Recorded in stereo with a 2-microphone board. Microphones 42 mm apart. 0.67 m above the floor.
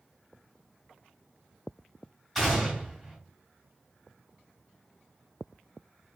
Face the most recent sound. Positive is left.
turn(degrees=5)  # may be behind; listen again after turning